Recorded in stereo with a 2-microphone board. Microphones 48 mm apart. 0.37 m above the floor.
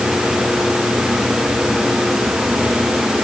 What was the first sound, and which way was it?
Only background noise.